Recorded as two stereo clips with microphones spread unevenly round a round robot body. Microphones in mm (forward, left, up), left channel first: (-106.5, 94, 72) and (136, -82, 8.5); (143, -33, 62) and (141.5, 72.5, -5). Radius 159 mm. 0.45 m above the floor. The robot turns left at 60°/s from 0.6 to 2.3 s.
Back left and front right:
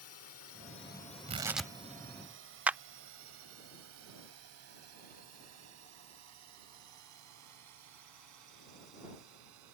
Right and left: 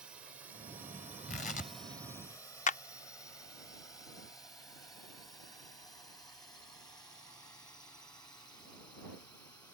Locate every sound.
0.0 s a drone: 115° left; by 9.8 s 25° right
1.3 s tearing paper: 105° right; by 1.7 s 135° right
2.7 s a clap: 95° right